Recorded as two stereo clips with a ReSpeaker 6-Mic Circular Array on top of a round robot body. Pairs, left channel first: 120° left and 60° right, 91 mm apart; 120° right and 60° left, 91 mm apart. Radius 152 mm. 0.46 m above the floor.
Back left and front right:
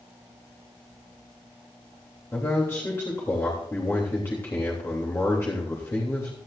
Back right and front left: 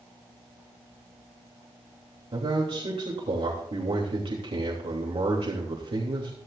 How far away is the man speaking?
About 3 m.